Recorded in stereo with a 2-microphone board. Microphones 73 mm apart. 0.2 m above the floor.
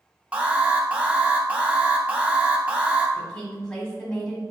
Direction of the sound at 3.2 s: 10° left (ahead or behind).